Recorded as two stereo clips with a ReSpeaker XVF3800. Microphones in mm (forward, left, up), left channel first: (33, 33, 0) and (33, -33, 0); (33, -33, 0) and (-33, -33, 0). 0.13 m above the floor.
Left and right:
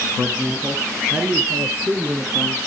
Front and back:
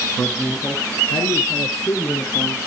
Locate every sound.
0.2 s a man speaking: 45° right, 1.3 m; by 2.6 s 25° right, 3 m